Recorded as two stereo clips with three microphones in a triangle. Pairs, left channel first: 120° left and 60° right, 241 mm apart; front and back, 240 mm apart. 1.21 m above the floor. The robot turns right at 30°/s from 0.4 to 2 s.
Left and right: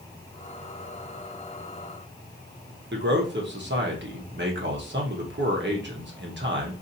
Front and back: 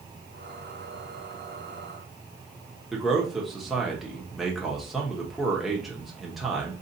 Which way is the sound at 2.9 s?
90° right.